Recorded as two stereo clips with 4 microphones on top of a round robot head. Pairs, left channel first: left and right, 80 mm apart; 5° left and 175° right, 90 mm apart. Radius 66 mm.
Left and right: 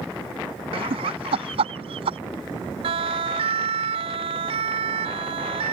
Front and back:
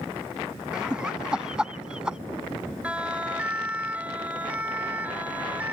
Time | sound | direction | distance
0.7 | laughter | 90° right | ?
2.8 | a siren | 90° right | ?